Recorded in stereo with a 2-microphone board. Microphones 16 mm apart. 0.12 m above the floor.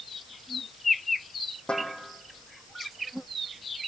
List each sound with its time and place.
1.7 s a snare drum: 70° left (ahead or behind), 6 m